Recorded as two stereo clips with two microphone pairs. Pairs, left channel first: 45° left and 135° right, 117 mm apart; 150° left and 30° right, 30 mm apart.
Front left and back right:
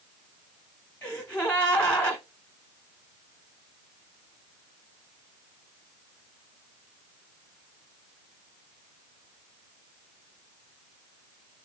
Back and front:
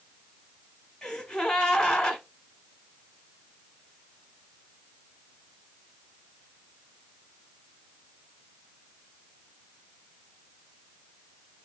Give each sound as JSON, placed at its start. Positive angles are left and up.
{"t": 1.0, "sound": "a gasp", "azimuth_deg": 95, "distance_m": 1.1}